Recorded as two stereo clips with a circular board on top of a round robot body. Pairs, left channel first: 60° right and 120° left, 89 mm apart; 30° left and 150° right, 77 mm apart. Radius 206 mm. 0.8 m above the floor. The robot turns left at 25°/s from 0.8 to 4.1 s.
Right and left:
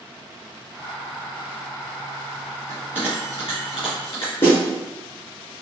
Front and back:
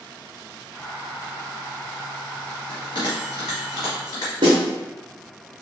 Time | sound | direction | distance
2.7 | a bell | 15° left | 1.2 m
4.4 | a snare drum | 115° right | 0.5 m